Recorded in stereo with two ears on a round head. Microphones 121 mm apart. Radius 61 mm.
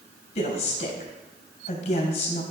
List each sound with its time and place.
0.3 s a woman speaking: 50° left (ahead or behind), 3.5 m